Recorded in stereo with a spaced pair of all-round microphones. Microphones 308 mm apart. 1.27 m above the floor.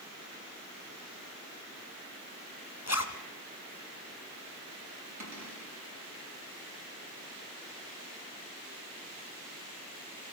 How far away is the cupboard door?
About 7 m.